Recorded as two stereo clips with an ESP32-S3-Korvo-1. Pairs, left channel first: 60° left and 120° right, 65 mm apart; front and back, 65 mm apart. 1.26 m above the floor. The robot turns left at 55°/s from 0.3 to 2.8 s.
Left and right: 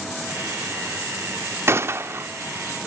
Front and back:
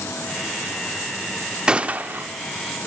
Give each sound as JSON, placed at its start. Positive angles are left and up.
{"t": 1.7, "sound": "a gunshot", "azimuth_deg": -115, "distance_m": 1.0}